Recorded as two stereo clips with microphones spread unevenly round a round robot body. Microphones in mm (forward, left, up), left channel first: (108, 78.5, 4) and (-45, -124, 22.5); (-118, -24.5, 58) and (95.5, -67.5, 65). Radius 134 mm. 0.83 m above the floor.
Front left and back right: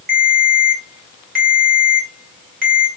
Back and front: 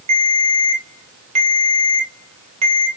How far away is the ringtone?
About 1.7 m.